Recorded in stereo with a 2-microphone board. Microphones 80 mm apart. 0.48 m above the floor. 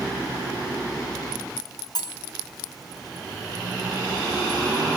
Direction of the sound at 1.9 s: 50° left (ahead or behind).